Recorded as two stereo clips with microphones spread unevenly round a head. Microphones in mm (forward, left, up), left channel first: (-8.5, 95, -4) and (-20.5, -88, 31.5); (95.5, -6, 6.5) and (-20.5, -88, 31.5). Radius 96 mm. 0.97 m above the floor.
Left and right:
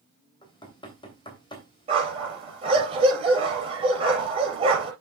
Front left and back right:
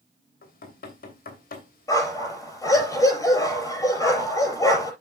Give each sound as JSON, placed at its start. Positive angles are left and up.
{"t": 0.4, "sound": "knocking", "azimuth_deg": 20, "distance_m": 3.0}
{"t": 1.9, "sound": "a dog barking", "azimuth_deg": -35, "distance_m": 5.0}